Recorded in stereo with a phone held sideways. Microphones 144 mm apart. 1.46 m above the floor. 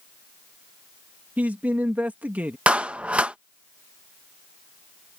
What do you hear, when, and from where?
1.4 s a man speaking: 10° right (ahead or behind)
2.7 s a clap: 10° right (ahead or behind)